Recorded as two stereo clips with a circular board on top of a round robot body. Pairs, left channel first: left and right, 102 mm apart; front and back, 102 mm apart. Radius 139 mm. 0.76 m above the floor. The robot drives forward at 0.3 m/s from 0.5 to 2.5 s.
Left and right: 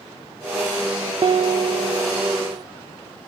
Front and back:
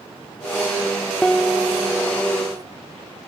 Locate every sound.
1.2 s a piano: 80° right, 0.5 m; by 2.6 s 130° right, 0.6 m